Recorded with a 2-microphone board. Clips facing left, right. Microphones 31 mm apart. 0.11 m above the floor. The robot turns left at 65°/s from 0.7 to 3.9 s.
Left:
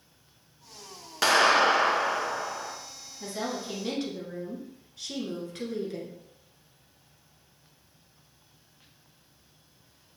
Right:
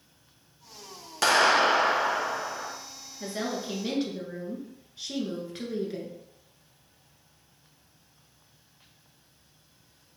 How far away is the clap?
About 0.9 m.